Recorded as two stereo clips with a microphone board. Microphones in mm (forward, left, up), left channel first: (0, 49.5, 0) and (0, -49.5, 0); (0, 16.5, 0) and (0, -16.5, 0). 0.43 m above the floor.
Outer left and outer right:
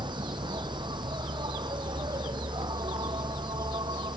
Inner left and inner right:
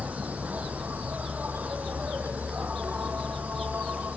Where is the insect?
50° right (ahead or behind).